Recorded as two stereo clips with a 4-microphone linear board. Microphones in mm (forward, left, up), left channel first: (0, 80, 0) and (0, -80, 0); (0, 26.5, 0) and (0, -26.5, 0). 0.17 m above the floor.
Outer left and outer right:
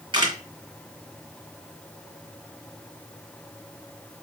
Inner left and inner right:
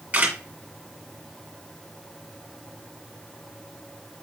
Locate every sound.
0.1 s a camera shutter: 30° right (ahead or behind), 1.7 m